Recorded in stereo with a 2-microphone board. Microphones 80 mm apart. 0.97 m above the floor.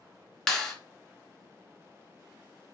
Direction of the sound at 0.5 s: 5° left (ahead or behind).